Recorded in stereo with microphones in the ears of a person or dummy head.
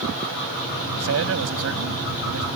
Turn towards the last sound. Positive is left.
turn(degrees=-85)